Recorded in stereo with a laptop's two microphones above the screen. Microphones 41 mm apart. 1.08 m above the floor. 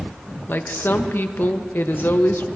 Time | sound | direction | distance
0.5 | a woman speaking | 60° left (ahead or behind) | 1.0 m